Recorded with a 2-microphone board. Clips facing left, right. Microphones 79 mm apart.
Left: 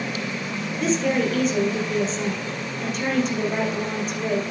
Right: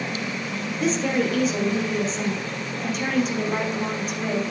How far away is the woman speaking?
About 3.5 m.